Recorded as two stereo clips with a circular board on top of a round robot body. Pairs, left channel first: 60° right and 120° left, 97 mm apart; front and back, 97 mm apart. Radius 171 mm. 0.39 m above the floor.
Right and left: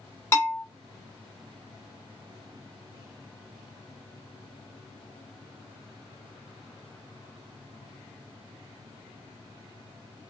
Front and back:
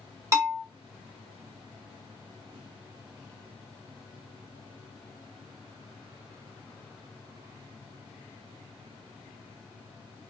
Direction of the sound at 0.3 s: 125° right.